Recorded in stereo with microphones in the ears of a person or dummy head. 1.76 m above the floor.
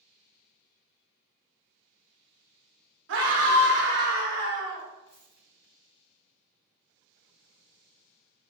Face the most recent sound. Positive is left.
turn(degrees=-15)  # may be behind; listen again after turning